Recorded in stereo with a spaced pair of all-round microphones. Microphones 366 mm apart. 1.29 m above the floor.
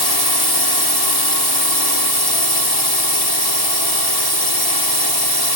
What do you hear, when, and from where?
0.0 s a drone: 80° left